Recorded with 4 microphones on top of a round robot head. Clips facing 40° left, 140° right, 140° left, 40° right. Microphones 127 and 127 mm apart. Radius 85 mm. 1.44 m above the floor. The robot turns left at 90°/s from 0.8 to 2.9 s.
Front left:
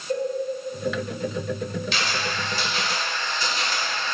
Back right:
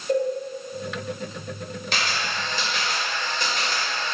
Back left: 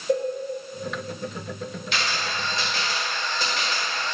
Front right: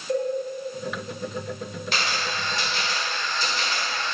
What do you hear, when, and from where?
0.1 s a cowbell: 160° left, 1.6 m
1.9 s a camera shutter: 90° right, 2.5 m; by 4.2 s straight behind, 2.5 m